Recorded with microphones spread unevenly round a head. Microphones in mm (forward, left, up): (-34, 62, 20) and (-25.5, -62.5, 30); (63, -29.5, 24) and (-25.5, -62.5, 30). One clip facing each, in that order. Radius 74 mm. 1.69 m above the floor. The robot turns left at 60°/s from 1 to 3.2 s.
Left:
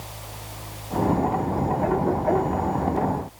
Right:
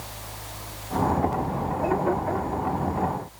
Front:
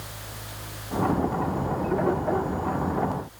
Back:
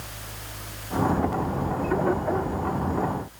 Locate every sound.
Only background noise.